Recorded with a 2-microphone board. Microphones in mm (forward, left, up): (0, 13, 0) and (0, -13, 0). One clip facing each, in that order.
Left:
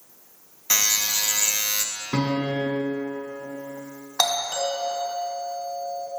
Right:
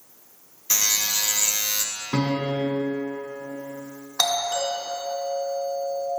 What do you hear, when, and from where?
0.7 s a buzzer: 30° left (ahead or behind), 0.6 m
2.1 s a piano: 5° right (ahead or behind), 2 m
4.2 s a doorbell: 25° left (ahead or behind), 1.8 m